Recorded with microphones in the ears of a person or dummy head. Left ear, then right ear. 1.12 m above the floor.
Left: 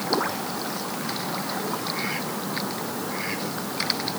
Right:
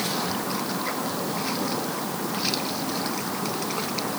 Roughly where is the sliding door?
No sliding door in this recording.